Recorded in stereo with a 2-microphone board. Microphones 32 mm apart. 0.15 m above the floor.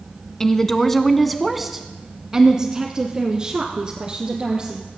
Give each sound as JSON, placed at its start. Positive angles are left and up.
{"t": 0.4, "sound": "a woman speaking", "side_deg": 15, "distance_m": 1.1}